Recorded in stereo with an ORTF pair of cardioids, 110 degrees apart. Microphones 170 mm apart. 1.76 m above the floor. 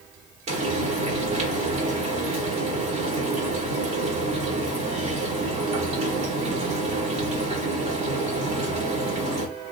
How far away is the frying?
About 1.4 m.